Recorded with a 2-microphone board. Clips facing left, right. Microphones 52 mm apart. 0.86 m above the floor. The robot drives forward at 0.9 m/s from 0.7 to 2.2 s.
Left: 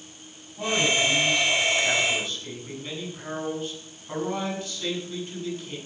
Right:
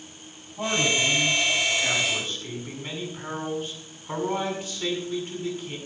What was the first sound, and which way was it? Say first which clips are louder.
A man speaking: left 1 dB; 25° right (ahead or behind).